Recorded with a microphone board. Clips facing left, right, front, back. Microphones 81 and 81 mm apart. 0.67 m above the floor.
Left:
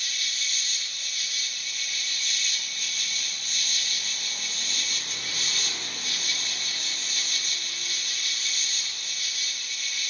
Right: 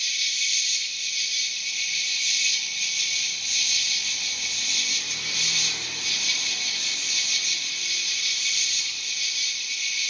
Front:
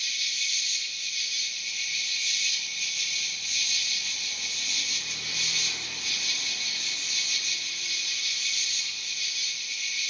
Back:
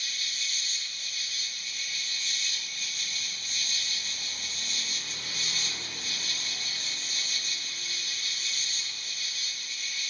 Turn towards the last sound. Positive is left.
turn(degrees=135)